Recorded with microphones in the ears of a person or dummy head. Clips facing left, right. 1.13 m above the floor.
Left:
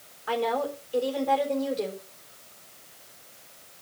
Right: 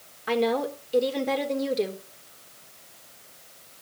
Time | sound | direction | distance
0.3 | a woman speaking | 25° right (ahead or behind) | 3.5 m